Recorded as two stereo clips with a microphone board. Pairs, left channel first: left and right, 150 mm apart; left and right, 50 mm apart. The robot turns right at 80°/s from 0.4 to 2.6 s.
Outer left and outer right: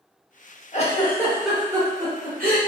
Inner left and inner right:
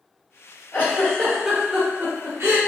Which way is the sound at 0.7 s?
45° left (ahead or behind).